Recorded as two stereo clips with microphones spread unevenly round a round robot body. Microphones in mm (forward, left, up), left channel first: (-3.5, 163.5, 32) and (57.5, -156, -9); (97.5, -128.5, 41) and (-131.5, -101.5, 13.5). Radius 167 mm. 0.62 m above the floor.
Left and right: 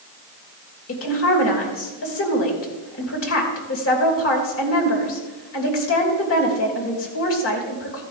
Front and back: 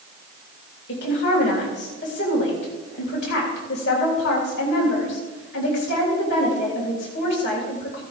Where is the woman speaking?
50° left, 3 m.